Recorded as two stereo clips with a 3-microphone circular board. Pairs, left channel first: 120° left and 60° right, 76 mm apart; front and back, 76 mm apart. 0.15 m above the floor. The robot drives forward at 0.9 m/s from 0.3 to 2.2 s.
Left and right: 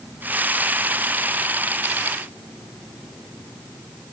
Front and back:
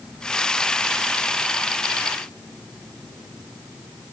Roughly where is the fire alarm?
No fire alarm in this recording.